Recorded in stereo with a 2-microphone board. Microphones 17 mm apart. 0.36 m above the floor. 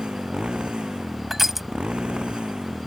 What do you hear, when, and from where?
0.0 s a motorcycle: 70° right (ahead or behind)
1.3 s crushing: 10° right (ahead or behind)